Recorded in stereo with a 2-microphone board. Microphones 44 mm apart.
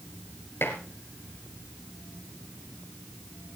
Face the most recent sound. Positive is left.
turn(degrees=55)  # may be behind; listen again after turning